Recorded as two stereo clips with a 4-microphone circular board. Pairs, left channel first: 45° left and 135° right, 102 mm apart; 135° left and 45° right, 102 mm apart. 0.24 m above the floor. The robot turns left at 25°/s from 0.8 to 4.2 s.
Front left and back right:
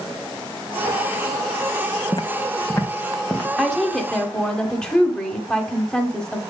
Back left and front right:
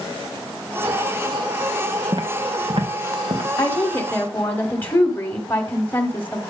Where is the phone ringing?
I don't hear a phone ringing.